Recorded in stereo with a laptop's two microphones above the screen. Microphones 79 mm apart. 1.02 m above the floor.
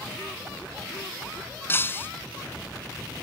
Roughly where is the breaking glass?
Left.